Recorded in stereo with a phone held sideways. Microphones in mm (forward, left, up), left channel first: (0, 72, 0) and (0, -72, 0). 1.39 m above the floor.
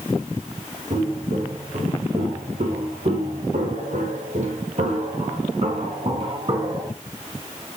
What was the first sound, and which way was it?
Footsteps, 40° right (ahead or behind).